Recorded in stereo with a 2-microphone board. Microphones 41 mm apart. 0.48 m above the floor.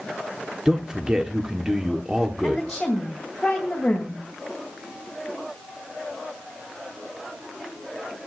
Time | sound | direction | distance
0.7 | a man speaking | 20° right (ahead or behind) | 1.1 m
2.4 | a woman speaking | 5° left (ahead or behind) | 2.5 m